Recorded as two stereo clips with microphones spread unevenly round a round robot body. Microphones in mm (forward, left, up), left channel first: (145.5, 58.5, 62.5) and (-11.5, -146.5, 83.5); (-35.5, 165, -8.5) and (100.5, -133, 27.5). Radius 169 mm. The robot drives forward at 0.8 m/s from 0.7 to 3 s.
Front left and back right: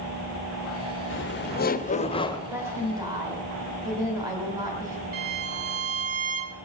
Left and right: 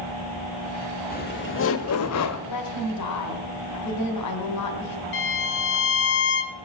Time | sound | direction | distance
1.1 | laughter | 60° left | 1.3 m
2.5 | a woman speaking | 150° left | 2 m
5.1 | a violin | 170° left | 0.7 m